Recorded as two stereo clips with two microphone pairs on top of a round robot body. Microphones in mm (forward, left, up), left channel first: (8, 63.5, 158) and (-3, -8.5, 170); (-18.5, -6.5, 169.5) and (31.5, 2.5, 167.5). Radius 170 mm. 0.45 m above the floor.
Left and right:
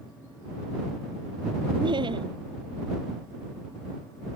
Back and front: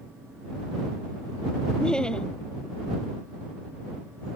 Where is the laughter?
95° right.